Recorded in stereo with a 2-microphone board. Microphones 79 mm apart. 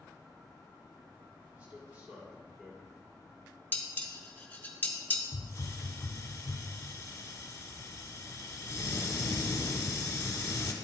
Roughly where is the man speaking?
Right.